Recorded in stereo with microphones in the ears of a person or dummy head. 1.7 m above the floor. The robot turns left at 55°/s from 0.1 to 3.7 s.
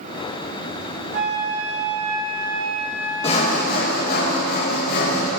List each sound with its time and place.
1.1 s a flute: 85° right, 3 m; by 4.2 s 130° left, 3 m
3.2 s sawing: 30° left (ahead or behind), 1.6 m; by 5.3 s 55° left (ahead or behind), 1.6 m